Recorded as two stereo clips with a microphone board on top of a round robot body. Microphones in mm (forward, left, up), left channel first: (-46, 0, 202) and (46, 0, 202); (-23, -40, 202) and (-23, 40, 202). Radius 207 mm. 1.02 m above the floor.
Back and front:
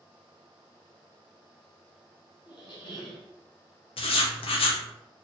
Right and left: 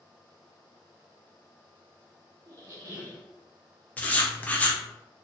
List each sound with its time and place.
2.5 s a squeak: 145° left, 0.7 m
4.0 s writing: 160° right, 0.6 m